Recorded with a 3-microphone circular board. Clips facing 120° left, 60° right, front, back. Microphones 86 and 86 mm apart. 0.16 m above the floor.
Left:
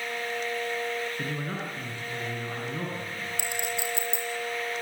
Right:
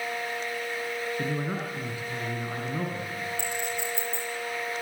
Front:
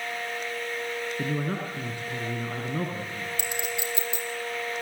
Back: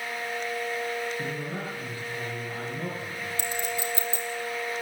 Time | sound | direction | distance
1.2 | a man speaking | 20° left | 6 m
3.4 | a clink | 125° left | 4 m